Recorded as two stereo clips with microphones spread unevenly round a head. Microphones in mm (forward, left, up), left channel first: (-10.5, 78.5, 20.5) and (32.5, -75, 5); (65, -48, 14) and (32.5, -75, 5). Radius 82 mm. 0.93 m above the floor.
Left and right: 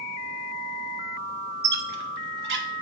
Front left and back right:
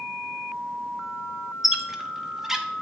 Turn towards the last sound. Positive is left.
turn(degrees=-60)